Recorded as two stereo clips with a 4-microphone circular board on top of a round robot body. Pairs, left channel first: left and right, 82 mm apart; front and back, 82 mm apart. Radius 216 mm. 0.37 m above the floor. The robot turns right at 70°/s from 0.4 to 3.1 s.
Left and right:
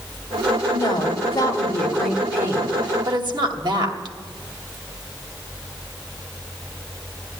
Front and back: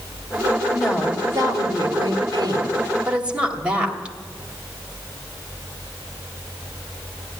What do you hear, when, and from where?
0.7 s a woman speaking: 90° left, 2.5 m; by 4.2 s 105° right, 2.5 m